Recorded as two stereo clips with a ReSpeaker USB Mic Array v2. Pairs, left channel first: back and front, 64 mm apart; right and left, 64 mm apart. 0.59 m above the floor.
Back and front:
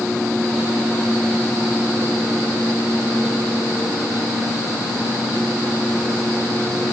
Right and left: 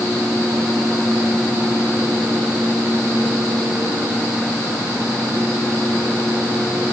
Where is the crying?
No crying in this recording.